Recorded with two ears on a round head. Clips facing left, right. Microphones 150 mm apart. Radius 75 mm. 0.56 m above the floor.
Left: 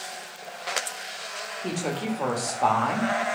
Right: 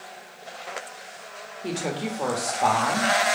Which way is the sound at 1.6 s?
5° right (ahead or behind).